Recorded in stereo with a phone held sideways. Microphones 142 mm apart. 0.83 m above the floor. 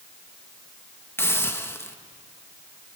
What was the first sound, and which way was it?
A hiss, 15° left (ahead or behind).